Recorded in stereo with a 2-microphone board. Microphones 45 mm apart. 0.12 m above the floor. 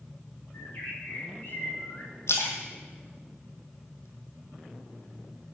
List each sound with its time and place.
0.5 s a bird: 50° left (ahead or behind), 5.5 m
2.3 s a splash: 75° left (ahead or behind), 2.0 m